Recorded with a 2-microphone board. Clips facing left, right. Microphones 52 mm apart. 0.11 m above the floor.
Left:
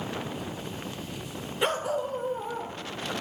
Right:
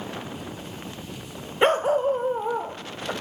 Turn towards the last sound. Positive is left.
turn(degrees=-40)  # may be behind; listen again after turning